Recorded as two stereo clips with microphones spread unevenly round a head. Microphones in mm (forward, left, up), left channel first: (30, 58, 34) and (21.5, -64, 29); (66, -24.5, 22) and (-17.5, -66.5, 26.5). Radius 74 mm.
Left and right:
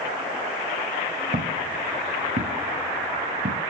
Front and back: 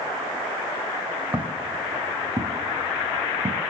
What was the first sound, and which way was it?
Footsteps, 85° right.